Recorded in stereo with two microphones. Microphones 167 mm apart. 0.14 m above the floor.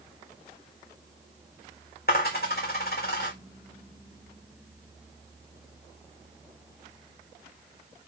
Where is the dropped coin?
60° left (ahead or behind), 1.6 m.